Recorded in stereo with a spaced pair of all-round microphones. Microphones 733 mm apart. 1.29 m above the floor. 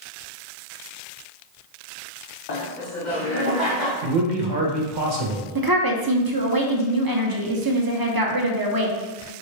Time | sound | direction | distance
2.5 | laughter | 65° left (ahead or behind) | 0.8 m
4.0 | a man speaking | 85° right | 1.0 m
5.5 | a woman speaking | 30° right (ahead or behind) | 0.7 m